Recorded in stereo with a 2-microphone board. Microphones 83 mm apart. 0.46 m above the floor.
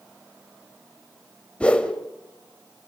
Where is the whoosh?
15° left (ahead or behind), 1.9 m.